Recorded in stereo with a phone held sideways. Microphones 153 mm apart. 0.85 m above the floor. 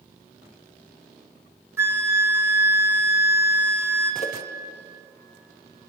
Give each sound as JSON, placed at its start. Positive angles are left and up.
{"t": 1.8, "sound": "a flute", "side_deg": -15, "distance_m": 0.8}
{"t": 4.2, "sound": "a whoosh", "side_deg": 40, "distance_m": 0.9}